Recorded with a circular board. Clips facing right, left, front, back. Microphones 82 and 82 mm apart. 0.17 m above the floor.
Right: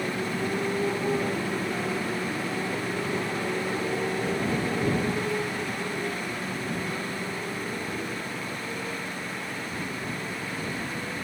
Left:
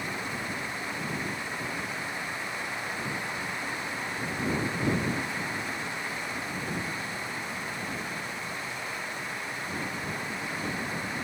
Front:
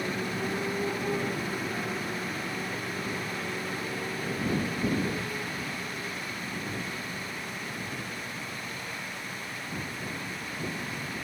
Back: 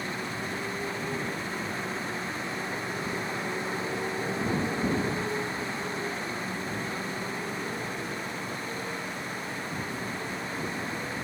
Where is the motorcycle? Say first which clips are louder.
Right 6 dB, front 2 dB; 65° right; by 11.2 s 140° right.